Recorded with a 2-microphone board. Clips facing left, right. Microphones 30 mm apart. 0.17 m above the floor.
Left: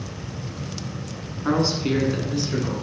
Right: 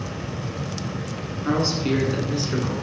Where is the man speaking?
20° left (ahead or behind), 1.5 m; by 2.7 s 25° right (ahead or behind), 1.8 m.